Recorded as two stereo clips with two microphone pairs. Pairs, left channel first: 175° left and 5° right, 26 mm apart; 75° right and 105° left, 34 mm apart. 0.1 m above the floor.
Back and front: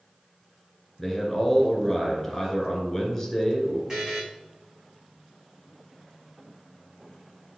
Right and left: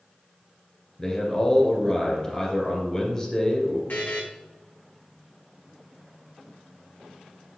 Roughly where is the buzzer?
Ahead right.